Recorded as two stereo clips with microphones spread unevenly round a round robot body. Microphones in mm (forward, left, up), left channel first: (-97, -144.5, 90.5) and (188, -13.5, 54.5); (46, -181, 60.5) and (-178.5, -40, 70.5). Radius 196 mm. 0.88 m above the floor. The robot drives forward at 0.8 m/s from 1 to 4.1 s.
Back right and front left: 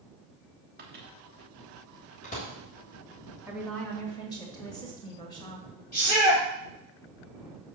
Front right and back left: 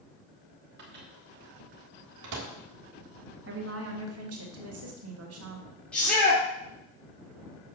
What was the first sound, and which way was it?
A microwave, 90° left.